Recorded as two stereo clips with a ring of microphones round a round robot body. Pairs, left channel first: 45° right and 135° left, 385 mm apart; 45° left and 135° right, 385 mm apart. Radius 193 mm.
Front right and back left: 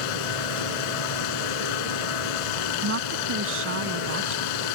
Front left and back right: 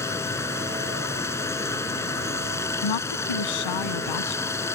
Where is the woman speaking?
75° left.